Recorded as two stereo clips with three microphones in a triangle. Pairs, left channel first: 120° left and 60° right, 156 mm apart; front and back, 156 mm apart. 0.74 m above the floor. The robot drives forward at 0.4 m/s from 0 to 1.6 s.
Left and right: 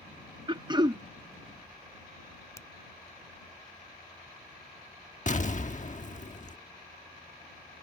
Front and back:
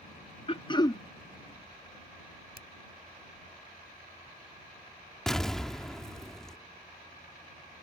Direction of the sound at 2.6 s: 170° right.